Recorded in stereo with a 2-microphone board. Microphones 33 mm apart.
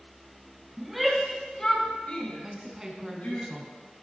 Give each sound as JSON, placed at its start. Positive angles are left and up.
{"t": 0.8, "sound": "a shout", "side_deg": -10, "distance_m": 1.6}
{"t": 2.4, "sound": "a woman speaking", "side_deg": -20, "distance_m": 1.2}